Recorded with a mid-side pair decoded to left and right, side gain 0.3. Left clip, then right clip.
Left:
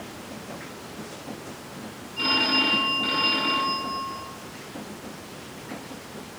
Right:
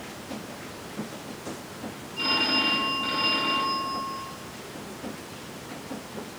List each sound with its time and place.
2.2 s a phone ringing: 30° left, 5 m